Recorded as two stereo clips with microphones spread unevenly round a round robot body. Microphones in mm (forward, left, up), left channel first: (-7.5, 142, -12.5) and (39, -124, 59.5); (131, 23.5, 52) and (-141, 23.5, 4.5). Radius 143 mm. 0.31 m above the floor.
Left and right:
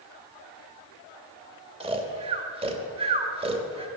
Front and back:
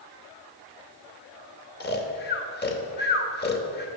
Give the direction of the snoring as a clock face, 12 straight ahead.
12 o'clock.